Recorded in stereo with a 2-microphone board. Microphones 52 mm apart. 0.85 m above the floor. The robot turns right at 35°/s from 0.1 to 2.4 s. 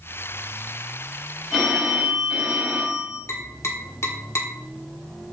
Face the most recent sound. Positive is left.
turn(degrees=60)  # may be behind; listen again after turning